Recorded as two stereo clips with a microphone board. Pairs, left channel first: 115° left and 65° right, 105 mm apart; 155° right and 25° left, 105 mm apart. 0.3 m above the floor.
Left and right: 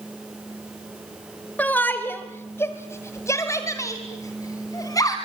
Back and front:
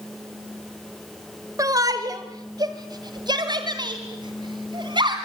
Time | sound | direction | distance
1.6 | a shout | 50° left | 1.6 m